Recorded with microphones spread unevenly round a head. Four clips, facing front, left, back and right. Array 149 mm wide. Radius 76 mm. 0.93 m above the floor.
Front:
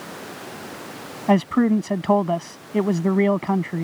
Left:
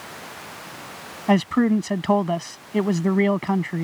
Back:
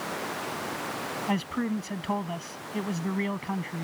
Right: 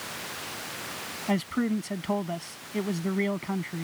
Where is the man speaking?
25° left.